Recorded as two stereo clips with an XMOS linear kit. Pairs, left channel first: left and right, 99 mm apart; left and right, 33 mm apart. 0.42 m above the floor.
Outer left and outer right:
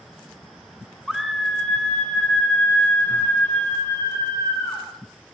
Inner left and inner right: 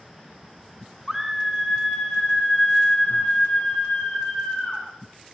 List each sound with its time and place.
1.1 s a scream: 5° right (ahead or behind), 1.8 m; by 4.8 s 30° left (ahead or behind), 4.5 m